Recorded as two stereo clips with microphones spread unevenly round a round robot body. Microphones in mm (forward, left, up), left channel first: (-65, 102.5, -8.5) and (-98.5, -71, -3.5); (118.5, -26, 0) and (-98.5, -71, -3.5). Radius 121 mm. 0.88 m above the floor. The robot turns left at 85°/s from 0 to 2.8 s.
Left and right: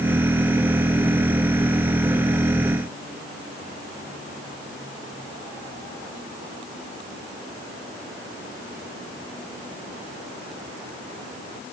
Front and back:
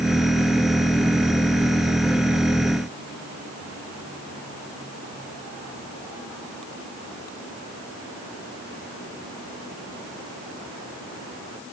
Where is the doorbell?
I don't hear a doorbell.